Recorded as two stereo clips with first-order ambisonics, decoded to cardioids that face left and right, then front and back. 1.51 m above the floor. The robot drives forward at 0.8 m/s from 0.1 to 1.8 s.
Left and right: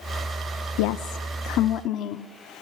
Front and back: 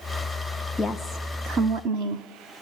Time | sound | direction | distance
0.8 | a woman speaking | 80° left | 0.7 m